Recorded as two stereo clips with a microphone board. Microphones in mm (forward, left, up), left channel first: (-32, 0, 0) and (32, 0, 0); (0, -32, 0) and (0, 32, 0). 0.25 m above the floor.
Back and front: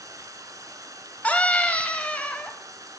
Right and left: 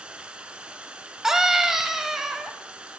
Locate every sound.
0.0 s running water: 20° left, 0.9 m
1.2 s a scream: 160° left, 1.0 m